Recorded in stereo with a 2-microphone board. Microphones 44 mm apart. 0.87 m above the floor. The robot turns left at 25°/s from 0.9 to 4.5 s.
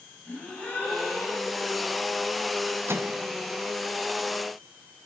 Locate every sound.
0.2 s a gasp: 30° left (ahead or behind), 5.5 m; by 1.7 s 45° left (ahead or behind), 5.5 m
2.9 s a microwave: 70° right (ahead or behind), 0.6 m; by 3.2 s 65° right (ahead or behind), 0.6 m